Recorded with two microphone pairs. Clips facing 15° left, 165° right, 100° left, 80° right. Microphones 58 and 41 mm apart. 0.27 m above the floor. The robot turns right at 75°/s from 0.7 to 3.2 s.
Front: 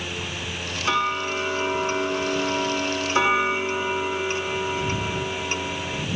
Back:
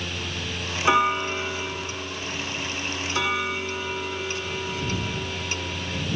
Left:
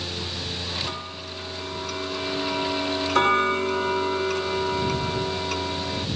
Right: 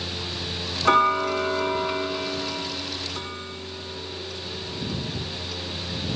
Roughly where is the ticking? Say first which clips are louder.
Back 3 dB, right 15 dB; right.